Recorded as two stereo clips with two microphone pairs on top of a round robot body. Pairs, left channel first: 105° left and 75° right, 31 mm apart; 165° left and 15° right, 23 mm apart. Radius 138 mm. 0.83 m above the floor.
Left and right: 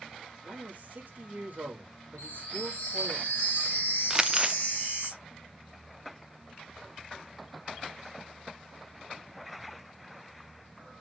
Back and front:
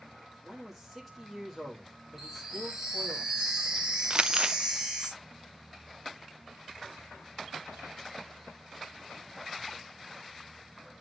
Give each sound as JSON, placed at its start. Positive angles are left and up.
{"t": 0.4, "sound": "a man speaking", "azimuth_deg": -110, "distance_m": 1.7}
{"t": 2.2, "sound": "a chime", "azimuth_deg": 70, "distance_m": 0.5}
{"t": 4.1, "sound": "crumpling", "azimuth_deg": -5, "distance_m": 0.7}